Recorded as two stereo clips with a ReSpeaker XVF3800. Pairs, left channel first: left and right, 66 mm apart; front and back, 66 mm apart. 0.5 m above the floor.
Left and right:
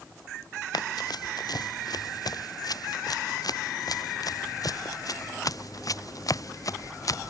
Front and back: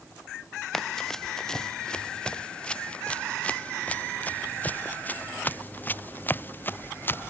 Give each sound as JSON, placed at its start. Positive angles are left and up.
{"t": 0.7, "sound": "running footsteps", "azimuth_deg": 85}